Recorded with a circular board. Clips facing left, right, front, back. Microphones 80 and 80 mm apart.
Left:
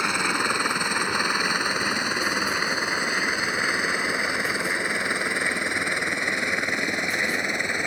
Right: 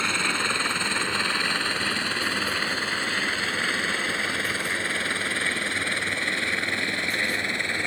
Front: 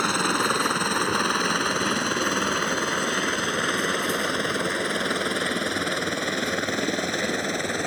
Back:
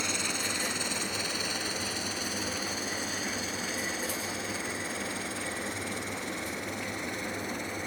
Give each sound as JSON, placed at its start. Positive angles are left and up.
{"t": 0.0, "sound": "a helicopter", "azimuth_deg": 20}